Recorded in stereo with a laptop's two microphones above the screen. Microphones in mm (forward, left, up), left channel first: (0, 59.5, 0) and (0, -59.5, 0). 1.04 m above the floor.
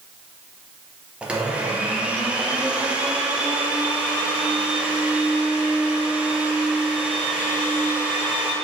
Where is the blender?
10° right (ahead or behind), 0.8 m.